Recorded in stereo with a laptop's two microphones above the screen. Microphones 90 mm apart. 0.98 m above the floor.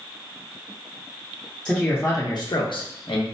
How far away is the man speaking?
About 0.6 m.